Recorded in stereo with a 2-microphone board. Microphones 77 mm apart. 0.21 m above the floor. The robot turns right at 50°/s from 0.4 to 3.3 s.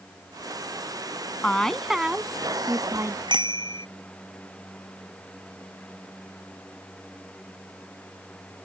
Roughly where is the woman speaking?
Behind.